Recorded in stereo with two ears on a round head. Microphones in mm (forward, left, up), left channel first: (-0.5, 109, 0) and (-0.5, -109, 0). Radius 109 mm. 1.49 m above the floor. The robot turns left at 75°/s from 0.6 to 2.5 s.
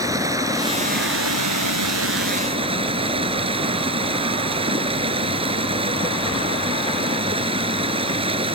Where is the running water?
15° right; by 8.6 s 155° right.